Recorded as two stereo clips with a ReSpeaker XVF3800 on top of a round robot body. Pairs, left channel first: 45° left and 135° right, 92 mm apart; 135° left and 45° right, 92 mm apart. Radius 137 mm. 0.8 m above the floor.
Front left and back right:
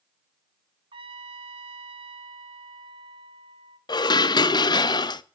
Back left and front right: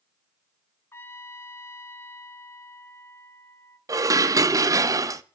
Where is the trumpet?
160° right, 0.5 m.